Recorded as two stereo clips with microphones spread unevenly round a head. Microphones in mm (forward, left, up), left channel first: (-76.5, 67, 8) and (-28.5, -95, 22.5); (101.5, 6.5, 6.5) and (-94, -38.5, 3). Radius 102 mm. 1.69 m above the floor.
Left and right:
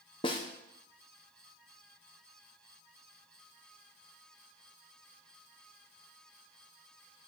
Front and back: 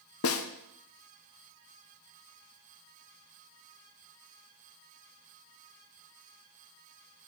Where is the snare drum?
40° left, 1.1 m.